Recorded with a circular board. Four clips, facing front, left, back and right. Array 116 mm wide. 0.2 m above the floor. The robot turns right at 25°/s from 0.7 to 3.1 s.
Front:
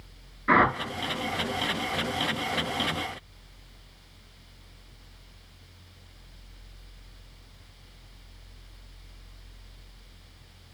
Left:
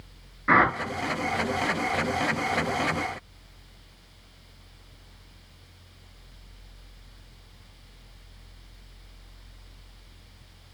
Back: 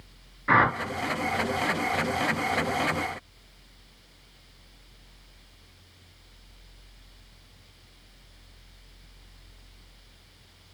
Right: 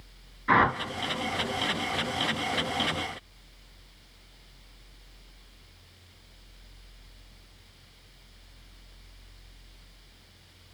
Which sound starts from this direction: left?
A whoosh, at 0.5 s.